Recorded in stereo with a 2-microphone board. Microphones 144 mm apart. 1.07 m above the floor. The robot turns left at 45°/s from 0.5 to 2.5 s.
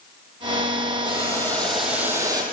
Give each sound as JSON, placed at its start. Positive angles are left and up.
{"t": 1.1, "sound": "boiling", "azimuth_deg": 30, "distance_m": 8.5}